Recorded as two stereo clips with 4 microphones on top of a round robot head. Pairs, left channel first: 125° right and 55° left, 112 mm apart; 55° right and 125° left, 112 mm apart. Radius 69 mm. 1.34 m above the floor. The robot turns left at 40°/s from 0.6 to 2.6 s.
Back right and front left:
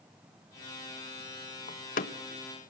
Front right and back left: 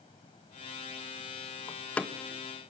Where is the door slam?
120° right, 1.3 m; by 2.7 s 160° right, 1.3 m.